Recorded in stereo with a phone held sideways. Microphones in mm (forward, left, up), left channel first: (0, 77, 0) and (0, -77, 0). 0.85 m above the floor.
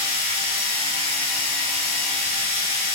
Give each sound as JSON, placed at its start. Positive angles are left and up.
{"t": 0.0, "sound": "a machine running", "side_deg": -35, "distance_m": 0.9}